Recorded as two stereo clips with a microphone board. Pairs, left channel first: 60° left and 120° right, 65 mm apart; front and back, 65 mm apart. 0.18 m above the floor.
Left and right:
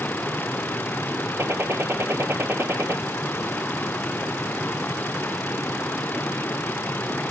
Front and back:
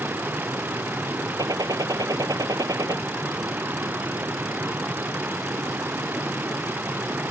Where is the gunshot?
170° right.